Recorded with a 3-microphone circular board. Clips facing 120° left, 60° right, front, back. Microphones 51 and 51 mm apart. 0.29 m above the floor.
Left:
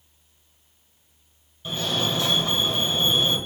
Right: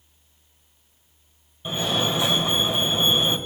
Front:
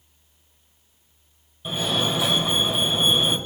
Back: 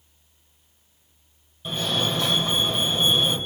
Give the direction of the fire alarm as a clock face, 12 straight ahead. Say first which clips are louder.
Right 2 dB, front 1 dB; 2 o'clock.